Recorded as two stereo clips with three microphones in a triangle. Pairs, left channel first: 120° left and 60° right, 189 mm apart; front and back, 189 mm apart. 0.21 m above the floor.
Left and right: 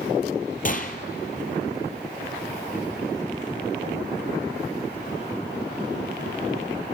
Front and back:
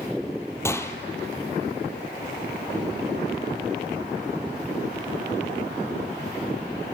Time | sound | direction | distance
0.7 | a gunshot | 75° left | 1.3 m